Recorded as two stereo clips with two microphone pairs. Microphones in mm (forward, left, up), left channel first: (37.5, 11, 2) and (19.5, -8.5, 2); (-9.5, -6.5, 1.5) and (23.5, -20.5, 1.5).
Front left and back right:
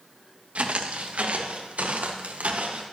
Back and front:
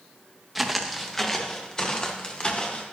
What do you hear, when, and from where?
0.6 s footsteps: 110° right, 1.9 m; by 2.8 s 145° right, 3 m